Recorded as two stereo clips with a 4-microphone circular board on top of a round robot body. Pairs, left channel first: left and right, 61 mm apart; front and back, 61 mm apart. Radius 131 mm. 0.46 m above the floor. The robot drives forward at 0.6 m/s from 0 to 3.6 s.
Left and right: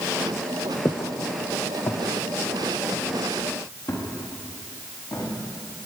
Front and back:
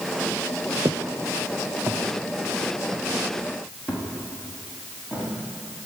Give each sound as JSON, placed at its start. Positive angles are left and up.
{"t": 0.8, "sound": "footsteps", "azimuth_deg": 150, "distance_m": 0.8}